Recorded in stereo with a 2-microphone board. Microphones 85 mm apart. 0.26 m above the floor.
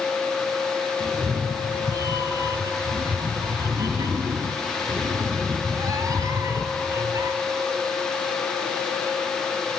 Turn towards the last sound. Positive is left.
turn(degrees=-40)  # may be behind; listen again after turning